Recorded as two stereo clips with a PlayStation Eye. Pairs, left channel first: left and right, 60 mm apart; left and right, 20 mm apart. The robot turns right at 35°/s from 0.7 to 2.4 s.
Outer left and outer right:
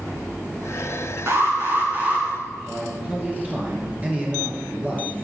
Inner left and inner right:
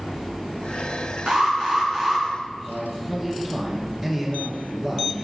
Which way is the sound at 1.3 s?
65° right.